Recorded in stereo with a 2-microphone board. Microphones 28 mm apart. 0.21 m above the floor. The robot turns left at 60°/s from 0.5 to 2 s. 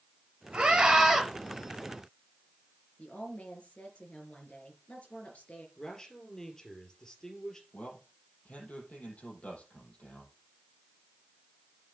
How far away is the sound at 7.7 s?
About 6.5 m.